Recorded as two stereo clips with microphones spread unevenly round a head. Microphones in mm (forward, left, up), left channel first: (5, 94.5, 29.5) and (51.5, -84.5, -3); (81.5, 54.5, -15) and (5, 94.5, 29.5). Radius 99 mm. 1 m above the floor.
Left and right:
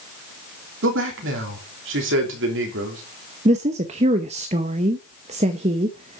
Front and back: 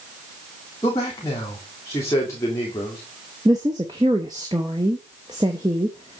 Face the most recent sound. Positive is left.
turn(degrees=-130)